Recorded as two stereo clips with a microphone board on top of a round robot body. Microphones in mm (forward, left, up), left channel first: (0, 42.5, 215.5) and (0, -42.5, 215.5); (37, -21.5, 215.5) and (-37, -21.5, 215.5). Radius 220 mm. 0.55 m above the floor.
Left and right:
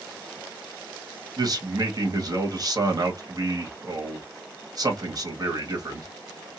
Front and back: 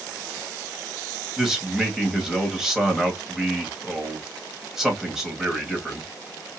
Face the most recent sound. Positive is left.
turn(degrees=-100)